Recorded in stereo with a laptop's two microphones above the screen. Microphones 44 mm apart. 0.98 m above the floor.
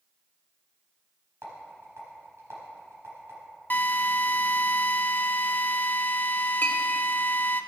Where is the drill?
45° left (ahead or behind), 0.6 m.